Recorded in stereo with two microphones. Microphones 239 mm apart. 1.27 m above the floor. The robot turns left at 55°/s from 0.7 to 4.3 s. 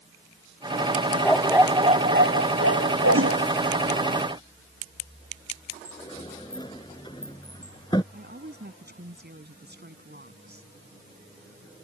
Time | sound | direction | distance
1.2 | a dog barking | 10° left | ?
3.1 | a whoosh | 60° right (ahead or behind) | ?
5.8 | a sliding door | 20° left (ahead or behind) | ?
8.1 | a woman speaking | 45° right (ahead or behind) | ?